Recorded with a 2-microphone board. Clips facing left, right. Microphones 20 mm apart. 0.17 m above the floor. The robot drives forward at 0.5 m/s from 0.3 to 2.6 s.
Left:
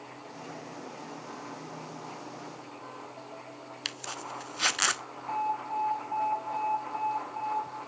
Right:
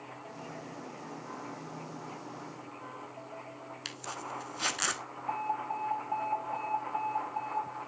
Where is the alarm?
10° right (ahead or behind), 3.5 m.